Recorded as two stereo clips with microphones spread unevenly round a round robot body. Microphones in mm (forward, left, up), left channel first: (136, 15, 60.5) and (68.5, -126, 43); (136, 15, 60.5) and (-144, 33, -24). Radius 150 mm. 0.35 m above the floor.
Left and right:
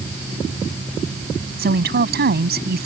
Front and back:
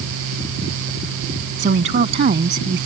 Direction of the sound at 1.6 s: 125° right.